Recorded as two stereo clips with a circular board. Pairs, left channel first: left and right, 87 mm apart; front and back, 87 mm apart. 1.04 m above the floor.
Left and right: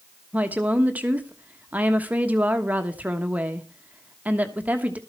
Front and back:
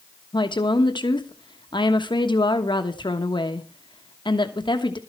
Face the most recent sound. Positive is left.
turn(degrees=-20)